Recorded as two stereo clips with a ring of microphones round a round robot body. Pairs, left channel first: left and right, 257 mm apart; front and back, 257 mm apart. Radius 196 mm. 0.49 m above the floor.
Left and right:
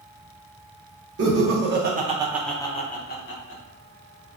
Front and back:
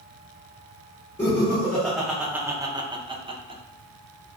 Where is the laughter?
80° right, 1.1 m; by 4.4 s 110° left, 1.6 m.